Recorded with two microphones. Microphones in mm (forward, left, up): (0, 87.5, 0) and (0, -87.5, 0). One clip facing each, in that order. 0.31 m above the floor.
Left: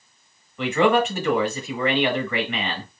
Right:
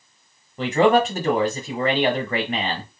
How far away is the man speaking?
About 1.1 m.